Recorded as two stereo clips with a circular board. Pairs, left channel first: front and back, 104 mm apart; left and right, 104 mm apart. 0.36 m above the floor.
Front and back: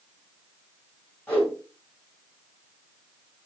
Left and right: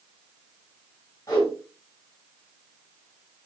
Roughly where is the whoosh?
Ahead left.